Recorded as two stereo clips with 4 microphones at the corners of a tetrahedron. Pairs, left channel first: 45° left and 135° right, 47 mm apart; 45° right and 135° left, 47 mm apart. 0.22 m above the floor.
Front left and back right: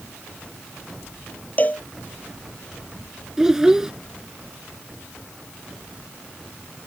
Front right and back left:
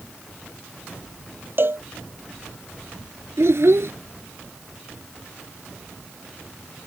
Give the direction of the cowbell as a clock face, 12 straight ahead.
9 o'clock.